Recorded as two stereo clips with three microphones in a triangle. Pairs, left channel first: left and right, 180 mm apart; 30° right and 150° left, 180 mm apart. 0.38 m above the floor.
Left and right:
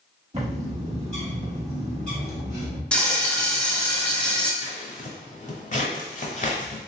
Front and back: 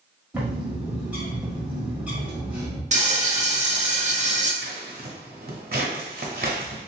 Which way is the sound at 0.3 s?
130° right.